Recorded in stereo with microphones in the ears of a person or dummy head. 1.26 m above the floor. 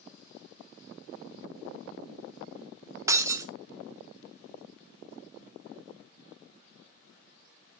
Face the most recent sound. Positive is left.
turn(degrees=-20)  # may be behind; listen again after turning